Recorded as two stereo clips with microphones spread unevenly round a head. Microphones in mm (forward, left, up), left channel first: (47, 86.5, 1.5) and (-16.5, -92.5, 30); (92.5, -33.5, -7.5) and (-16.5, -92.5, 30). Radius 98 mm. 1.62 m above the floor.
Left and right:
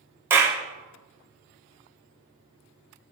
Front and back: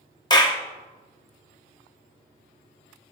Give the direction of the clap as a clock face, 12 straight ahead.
1 o'clock.